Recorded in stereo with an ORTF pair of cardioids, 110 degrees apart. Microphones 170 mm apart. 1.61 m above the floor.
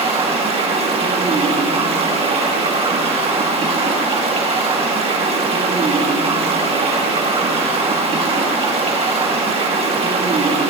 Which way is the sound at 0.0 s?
35° right.